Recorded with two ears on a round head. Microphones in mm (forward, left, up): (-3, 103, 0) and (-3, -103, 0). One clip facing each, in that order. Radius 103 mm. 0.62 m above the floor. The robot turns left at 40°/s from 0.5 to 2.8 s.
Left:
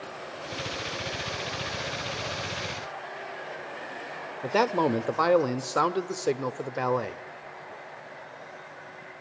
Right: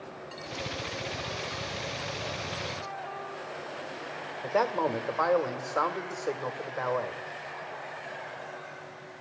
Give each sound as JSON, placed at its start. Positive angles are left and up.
{"t": 4.4, "sound": "a man speaking", "side_deg": 50, "distance_m": 1.7}